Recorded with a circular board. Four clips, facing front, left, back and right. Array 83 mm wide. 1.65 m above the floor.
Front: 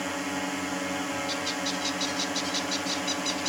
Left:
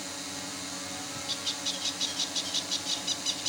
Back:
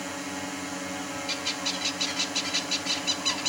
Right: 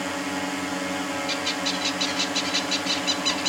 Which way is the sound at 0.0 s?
70° right.